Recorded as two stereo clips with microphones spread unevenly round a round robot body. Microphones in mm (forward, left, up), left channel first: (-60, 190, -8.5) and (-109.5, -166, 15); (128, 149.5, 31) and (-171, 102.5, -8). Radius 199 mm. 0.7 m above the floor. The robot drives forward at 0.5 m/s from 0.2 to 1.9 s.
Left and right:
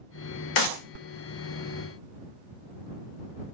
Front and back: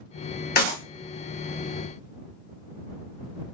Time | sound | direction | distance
0.6 | a clap | 70° left | 1.8 m